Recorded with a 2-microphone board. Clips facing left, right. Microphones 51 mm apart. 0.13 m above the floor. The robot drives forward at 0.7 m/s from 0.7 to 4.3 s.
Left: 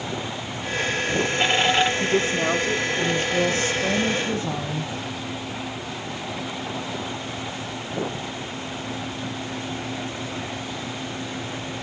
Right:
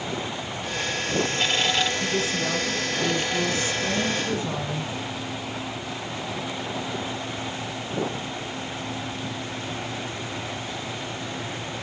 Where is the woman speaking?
45° left (ahead or behind), 2.0 m; by 4.9 s 30° left (ahead or behind), 3 m.